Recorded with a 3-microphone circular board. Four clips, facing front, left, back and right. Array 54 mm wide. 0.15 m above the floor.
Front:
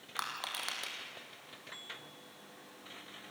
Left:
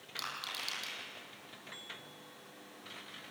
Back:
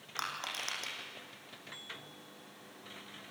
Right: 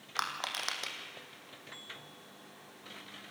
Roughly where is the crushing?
Right.